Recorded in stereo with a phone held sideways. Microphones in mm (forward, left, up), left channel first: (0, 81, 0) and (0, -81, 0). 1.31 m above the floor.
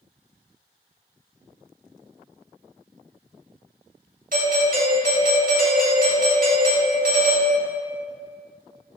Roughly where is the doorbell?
Right.